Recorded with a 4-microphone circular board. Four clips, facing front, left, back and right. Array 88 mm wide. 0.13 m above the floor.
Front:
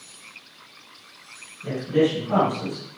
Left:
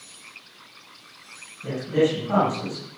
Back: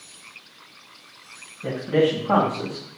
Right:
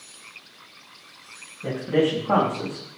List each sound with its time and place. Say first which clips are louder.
1.6 s a man speaking: even, back 1 dB; 135° right, 7 m; by 2.8 s 145° right, 8 m